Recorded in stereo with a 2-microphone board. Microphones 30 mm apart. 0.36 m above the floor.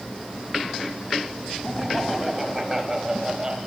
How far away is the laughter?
About 3 m.